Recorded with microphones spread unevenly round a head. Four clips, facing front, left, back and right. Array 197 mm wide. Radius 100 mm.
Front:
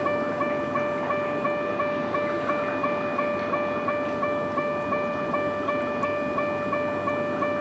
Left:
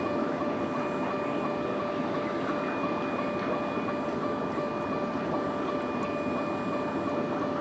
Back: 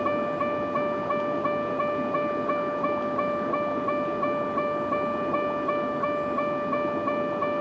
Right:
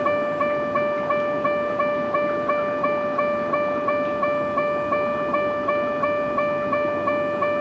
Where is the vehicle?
65° right.